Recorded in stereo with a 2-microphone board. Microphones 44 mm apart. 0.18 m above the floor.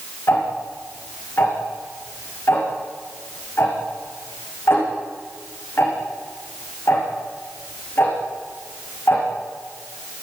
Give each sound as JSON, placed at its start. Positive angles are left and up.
{"t": 0.3, "sound": "ticking", "side_deg": 55, "distance_m": 8.0}